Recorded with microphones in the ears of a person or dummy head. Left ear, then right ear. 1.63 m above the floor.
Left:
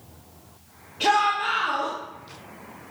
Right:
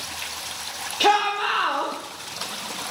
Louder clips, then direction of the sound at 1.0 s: Right 1 dB; 50° right (ahead or behind).